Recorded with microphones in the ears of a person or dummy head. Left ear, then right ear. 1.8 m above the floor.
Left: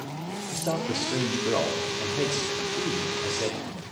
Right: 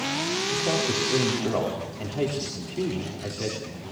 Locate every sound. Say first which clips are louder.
0.5 s a man speaking: right 1 dB; 10° left (ahead or behind), 4 m